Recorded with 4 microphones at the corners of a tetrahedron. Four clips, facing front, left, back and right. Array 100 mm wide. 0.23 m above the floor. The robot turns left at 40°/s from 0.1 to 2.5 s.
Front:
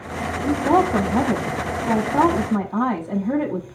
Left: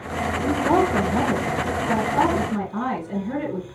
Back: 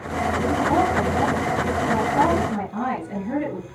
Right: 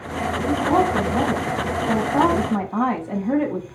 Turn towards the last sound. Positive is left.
turn(degrees=-55)